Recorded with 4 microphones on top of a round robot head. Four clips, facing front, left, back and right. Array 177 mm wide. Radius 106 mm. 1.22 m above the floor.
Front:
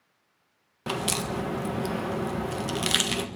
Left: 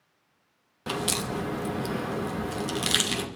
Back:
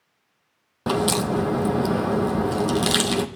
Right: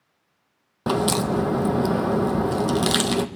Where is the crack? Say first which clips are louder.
Right 9 dB, back 8 dB; 125° right, 1.7 m.